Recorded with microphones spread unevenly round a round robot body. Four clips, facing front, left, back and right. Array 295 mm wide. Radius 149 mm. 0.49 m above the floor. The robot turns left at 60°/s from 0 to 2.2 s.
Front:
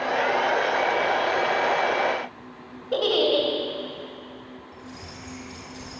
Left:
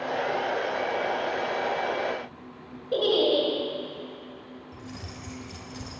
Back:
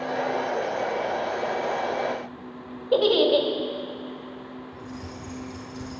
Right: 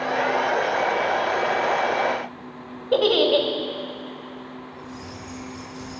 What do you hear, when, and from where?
2.9 s a giggle: 70° right, 1.8 m
4.7 s keys jangling: 100° left, 2.0 m